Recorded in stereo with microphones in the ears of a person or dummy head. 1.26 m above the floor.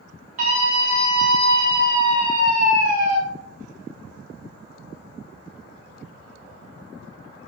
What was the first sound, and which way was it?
A scream, 45° right (ahead or behind).